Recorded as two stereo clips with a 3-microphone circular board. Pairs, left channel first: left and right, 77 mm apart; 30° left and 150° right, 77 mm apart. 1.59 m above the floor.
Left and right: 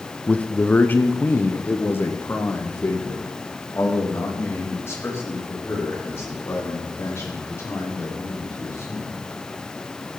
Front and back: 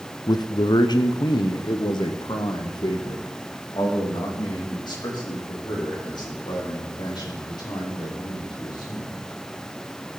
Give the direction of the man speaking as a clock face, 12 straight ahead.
11 o'clock.